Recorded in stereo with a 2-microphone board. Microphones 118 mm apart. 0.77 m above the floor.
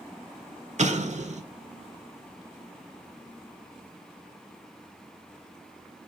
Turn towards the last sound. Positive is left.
turn(degrees=-75)  # may be behind; listen again after turning